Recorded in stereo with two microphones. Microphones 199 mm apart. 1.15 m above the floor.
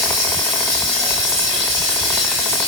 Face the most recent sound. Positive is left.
turn(degrees=-75)  # may be behind; listen again after turning